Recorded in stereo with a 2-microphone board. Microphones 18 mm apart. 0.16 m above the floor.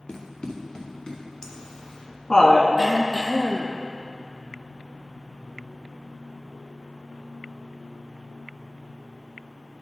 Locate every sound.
0.1 s running footsteps: 75° left (ahead or behind), 1.5 m; by 1.2 s 45° left (ahead or behind), 2.5 m
1.4 s laughter: 35° left (ahead or behind), 1.4 m
2.8 s throat clearing: 20° right (ahead or behind), 1.0 m